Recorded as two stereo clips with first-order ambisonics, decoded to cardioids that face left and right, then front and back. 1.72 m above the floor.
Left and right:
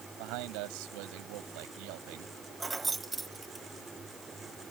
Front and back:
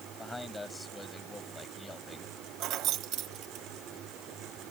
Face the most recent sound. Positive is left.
turn(degrees=-165)